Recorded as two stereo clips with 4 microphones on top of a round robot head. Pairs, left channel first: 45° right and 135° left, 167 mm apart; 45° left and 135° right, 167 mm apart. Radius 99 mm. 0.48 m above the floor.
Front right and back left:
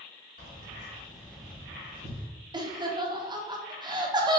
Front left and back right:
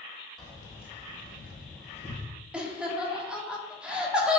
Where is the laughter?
150° left, 0.7 m.